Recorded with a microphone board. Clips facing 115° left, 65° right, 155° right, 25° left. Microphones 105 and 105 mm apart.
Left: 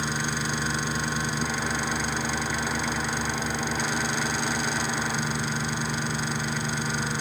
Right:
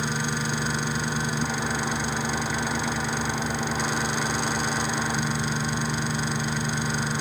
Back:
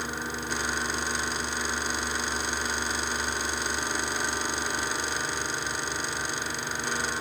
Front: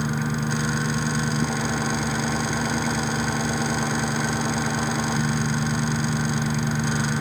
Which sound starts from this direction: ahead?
An engine running, at 0.0 s.